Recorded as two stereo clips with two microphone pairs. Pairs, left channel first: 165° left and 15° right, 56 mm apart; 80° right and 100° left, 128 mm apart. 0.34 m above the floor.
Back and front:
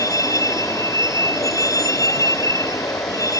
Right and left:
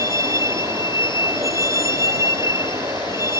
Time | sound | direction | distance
0.0 | a vehicle | 165° left | ?